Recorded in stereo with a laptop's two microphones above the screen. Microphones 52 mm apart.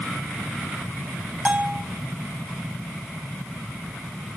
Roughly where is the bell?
Right.